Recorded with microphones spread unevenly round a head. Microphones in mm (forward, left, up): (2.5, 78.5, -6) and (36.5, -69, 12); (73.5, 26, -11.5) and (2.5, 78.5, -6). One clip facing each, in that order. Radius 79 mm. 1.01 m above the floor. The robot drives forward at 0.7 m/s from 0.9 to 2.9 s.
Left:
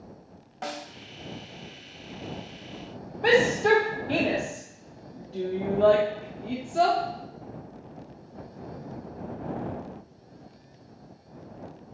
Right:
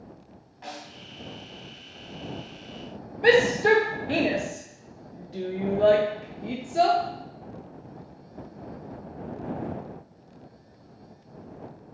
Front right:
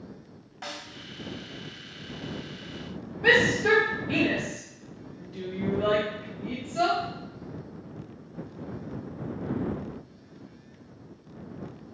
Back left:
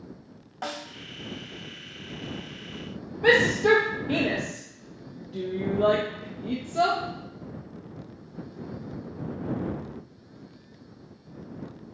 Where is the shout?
150° right, 1.2 m.